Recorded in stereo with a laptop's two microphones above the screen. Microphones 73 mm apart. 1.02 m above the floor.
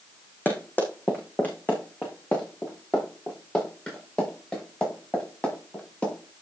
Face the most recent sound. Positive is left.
turn(degrees=15)  # may be behind; listen again after turning